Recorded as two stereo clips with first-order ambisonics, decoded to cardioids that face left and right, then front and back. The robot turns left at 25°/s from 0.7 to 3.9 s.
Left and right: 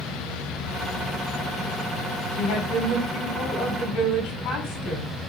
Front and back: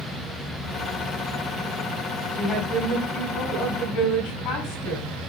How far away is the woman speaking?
About 7 m.